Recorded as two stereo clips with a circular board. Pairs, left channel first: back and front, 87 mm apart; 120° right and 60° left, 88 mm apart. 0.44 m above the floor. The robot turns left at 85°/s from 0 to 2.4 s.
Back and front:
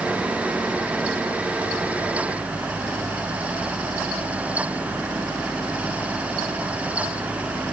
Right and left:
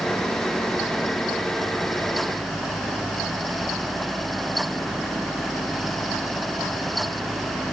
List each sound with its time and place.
Only background noise.